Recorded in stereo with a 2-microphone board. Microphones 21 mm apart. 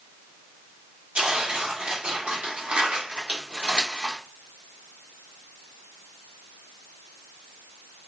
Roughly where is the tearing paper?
Right.